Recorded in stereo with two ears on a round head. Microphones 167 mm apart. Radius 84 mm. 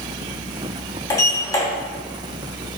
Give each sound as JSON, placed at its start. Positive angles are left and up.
{"t": 1.1, "sound": "a sliding door", "side_deg": 20, "distance_m": 2.0}